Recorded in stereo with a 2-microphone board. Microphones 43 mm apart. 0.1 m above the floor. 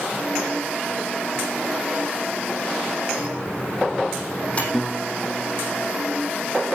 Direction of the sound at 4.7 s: Centre (ahead or behind).